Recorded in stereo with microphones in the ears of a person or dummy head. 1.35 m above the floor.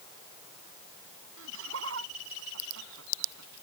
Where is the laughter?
85° right; by 3.5 s 90° right.